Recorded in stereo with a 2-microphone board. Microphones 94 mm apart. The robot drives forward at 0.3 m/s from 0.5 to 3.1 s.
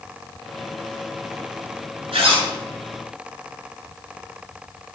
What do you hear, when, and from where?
2.1 s a zipper: 80° right, 2.0 m